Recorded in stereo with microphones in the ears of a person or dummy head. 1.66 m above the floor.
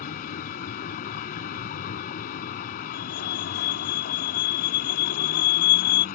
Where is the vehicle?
55° left (ahead or behind).